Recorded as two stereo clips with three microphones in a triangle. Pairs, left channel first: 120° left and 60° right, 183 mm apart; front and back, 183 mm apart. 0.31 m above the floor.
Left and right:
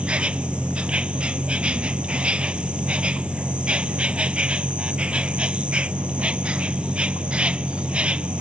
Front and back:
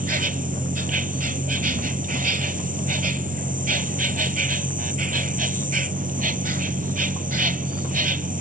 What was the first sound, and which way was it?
An insect, 145° right.